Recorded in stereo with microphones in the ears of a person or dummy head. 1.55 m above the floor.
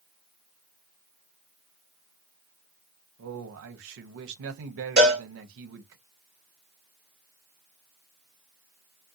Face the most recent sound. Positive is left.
turn(degrees=-20)  # may be behind; listen again after turning